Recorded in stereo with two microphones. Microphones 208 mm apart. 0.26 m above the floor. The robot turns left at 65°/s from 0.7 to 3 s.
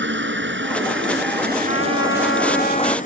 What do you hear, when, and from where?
0.0 s a helicopter: 60° right (ahead or behind); by 3.1 s 40° left (ahead or behind)
1.7 s a trumpet: 110° left; by 3.0 s 25° left